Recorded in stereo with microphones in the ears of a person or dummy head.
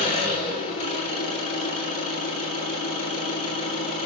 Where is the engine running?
35° left (ahead or behind), 5.5 m.